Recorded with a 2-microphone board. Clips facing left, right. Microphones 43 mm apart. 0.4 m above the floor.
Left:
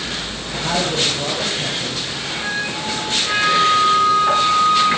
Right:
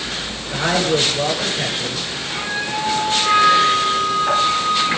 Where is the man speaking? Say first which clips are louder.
Right 3 dB; 65° right (ahead or behind), 6.5 m.